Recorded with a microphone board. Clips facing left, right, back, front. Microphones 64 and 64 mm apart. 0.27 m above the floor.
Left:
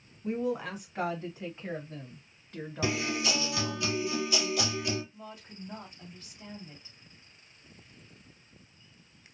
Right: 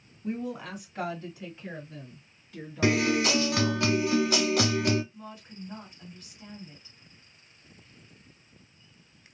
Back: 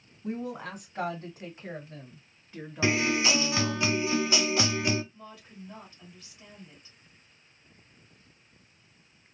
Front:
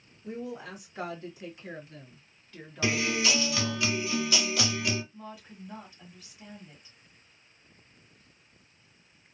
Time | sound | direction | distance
0.2 | a woman speaking | 170° left | 1.8 m
2.8 | a guitar | 120° right | 0.8 m
5.1 | a woman speaking | 65° left | 1.7 m